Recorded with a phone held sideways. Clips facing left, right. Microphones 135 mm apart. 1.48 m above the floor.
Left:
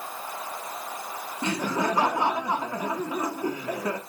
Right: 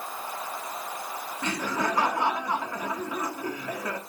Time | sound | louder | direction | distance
1.4 | laughter | left 3 dB | 25° left (ahead or behind) | 0.9 m